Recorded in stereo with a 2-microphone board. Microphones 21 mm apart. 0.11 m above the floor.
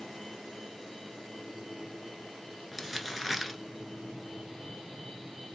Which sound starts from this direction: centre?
Crumpling, at 2.7 s.